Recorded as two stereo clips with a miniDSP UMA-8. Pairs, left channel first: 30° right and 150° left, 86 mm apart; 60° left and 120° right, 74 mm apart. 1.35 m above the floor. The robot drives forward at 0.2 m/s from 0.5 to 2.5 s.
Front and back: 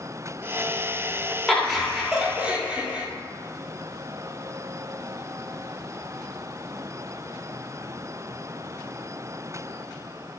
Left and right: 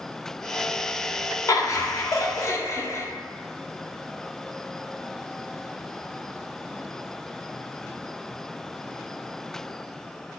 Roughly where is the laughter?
Ahead left.